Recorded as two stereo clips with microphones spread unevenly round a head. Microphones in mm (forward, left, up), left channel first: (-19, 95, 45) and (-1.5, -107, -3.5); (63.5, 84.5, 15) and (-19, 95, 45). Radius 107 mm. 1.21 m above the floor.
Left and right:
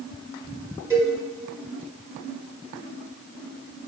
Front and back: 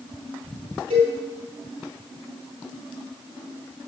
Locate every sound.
0.9 s a cowbell: 165° right, 2.5 m